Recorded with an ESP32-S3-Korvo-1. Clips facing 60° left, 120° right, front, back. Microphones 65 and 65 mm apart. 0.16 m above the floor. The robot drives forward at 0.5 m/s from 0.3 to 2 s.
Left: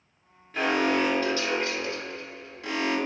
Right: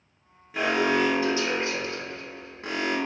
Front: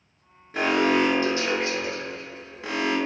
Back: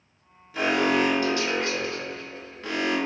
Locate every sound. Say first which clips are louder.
0.5 s an alarm: right 1 dB, front 1 dB; 40° right, 1.5 m; by 3.0 s 70° right, 1.1 m